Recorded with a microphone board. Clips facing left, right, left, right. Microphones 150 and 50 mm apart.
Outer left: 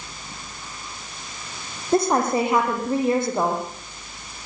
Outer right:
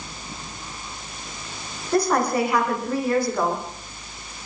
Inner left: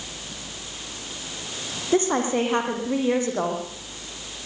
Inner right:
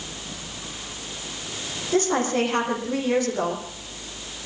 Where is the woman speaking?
25° left (ahead or behind), 7.5 m.